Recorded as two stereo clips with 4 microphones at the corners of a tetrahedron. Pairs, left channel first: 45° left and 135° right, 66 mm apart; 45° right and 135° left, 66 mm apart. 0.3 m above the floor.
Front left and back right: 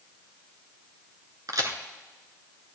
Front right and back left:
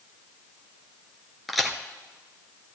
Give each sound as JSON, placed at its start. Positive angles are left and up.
{"t": 1.5, "sound": "a crack", "azimuth_deg": -135, "distance_m": 1.4}